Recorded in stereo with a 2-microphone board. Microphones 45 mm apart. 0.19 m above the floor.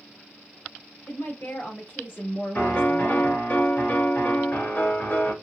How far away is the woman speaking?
About 2.5 m.